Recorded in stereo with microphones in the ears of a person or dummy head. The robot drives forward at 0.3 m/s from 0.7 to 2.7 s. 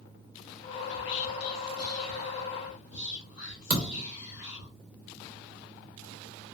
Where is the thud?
40° right (ahead or behind), 0.5 m.